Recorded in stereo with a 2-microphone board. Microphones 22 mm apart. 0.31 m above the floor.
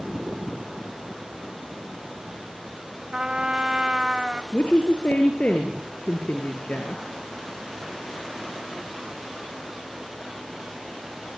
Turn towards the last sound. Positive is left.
turn(degrees=70)  # may be behind; listen again after turning